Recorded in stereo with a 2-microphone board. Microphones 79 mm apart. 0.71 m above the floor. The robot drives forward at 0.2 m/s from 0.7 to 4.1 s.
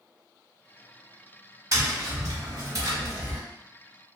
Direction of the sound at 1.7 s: 40° right (ahead or behind).